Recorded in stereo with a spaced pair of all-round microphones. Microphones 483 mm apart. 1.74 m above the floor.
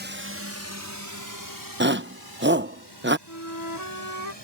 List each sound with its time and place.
0.0 s a drone: 20° right (ahead or behind); by 4.4 s 60° right (ahead or behind)
1.8 s a shout: 20° right (ahead or behind)
3.3 s a flute: 35° left (ahead or behind)